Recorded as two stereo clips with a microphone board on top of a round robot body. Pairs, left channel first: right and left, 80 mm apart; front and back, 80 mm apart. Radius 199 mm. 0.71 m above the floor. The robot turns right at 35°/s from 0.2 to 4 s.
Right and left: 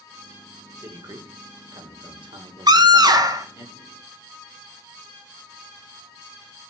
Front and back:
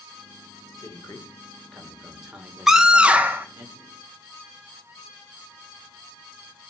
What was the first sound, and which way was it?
A man speaking, 45° left.